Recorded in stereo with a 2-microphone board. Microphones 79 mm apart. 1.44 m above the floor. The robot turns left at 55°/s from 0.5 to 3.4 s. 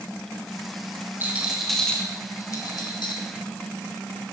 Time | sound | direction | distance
1.2 | a rattle | 25° right (ahead or behind) | 2 m